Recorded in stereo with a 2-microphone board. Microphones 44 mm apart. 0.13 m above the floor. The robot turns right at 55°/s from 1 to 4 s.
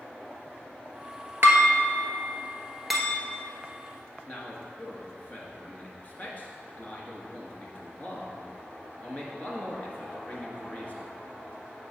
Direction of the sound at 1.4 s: 60° right (ahead or behind).